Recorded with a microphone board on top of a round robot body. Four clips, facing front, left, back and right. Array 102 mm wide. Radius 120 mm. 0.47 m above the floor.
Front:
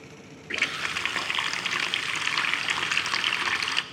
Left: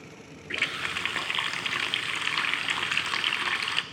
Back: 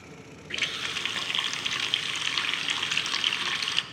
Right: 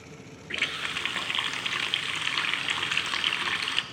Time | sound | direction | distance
0.5 | a running tap | 20° left | 0.6 m